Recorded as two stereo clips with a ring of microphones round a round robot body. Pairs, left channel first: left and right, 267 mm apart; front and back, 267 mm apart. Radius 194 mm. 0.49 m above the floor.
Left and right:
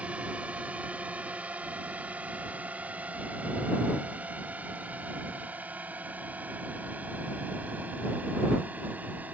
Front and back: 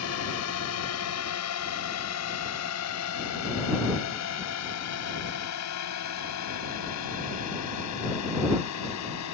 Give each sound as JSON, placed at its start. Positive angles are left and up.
{"t": 0.0, "sound": "a drone", "azimuth_deg": -5}